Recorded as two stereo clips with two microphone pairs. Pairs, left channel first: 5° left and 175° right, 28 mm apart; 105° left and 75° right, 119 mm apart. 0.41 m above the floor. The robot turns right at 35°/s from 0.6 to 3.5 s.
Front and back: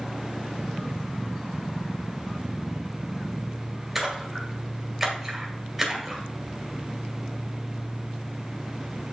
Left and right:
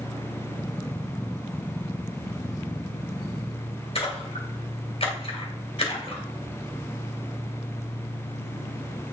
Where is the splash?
110° left, 2.0 m.